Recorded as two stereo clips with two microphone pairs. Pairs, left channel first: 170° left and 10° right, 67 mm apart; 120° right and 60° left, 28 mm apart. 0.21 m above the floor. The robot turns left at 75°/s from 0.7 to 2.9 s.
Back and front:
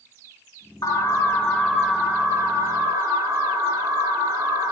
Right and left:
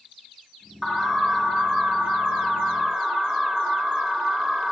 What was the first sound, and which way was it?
An alarm, 150° left.